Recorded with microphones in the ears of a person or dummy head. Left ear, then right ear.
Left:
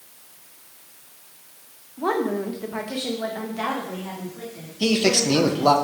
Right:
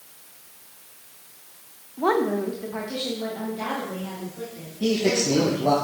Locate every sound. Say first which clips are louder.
2.0 s a woman speaking: right 2 dB; 10° right (ahead or behind), 0.6 m; by 5.8 s 60° left (ahead or behind), 2.5 m
4.8 s a man speaking: left 2 dB; 60° left (ahead or behind), 1.0 m